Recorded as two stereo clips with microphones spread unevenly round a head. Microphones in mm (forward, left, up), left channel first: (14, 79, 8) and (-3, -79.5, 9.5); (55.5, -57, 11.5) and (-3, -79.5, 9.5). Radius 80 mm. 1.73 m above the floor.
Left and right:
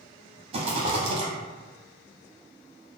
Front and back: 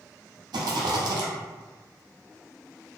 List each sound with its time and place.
0.5 s a rattle: 155° right, 0.6 m